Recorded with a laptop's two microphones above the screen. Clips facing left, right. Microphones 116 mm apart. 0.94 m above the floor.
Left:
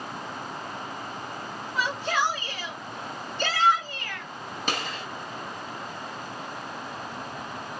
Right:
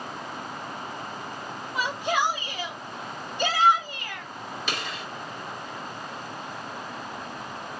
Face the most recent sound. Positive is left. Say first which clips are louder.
# left 4 dB
turn(degrees=40)  # may be behind; listen again after turning